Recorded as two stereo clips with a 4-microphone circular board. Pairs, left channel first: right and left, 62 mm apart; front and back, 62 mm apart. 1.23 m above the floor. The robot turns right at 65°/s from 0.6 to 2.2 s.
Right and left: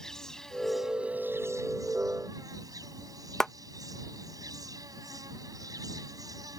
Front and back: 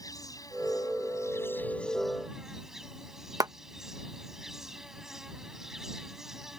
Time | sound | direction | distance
0.0 | an insect | 5° right | ?
3.4 | a clap | 170° right | ?